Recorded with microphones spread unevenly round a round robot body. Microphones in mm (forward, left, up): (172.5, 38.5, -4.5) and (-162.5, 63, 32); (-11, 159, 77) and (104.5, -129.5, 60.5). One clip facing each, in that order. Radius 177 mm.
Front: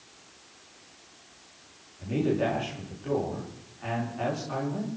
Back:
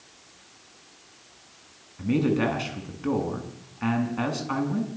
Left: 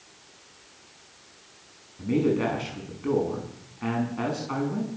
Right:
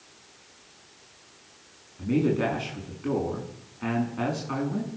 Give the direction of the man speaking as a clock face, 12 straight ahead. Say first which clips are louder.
Back 4 dB, left 1 dB; 5 o'clock.